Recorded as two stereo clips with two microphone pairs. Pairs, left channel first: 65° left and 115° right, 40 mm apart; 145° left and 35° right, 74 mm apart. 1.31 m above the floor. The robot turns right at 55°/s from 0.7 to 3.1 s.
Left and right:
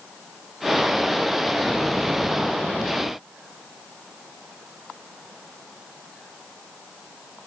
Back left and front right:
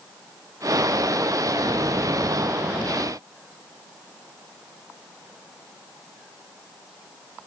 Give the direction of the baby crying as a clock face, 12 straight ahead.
No baby crying in this recording.